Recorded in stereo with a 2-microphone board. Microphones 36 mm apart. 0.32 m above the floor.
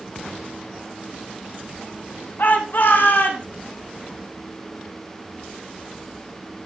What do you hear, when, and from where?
2.4 s a shout: 60° left (ahead or behind), 2.5 m; by 3.5 s 70° left (ahead or behind), 3.5 m